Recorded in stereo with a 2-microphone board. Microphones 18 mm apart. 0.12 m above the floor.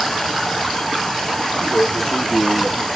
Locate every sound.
1.6 s a man speaking: 30° left (ahead or behind), 3.5 m; by 2.9 s 20° left (ahead or behind), 2 m